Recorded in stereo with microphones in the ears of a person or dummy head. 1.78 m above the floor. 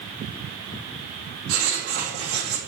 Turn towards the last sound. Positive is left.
turn(degrees=-75)  # may be behind; listen again after turning